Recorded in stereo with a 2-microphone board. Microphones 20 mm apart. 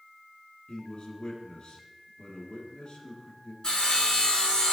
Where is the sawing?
45° left (ahead or behind), 2 m.